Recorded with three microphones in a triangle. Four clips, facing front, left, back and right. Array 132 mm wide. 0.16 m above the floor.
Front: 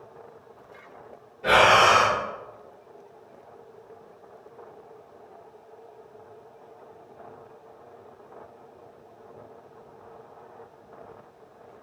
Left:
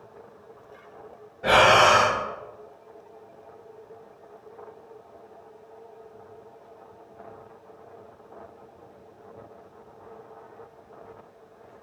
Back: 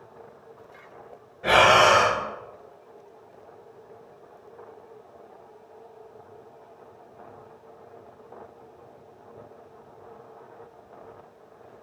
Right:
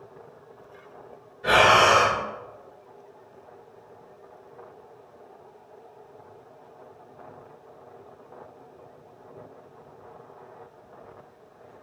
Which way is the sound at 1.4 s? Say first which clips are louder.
Left 1 dB, even; 95° left.